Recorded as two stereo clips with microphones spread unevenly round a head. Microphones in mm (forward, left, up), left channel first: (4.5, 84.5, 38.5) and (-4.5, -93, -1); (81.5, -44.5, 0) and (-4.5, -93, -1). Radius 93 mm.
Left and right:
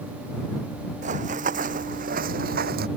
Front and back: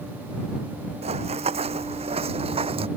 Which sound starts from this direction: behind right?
Running footsteps, at 1.0 s.